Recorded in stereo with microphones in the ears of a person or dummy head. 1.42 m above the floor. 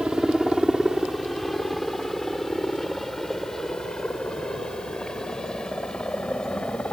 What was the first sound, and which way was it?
A helicopter, centre (ahead or behind).